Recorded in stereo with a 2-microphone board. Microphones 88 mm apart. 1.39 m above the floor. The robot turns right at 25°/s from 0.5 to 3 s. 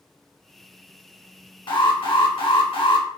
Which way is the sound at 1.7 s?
65° left.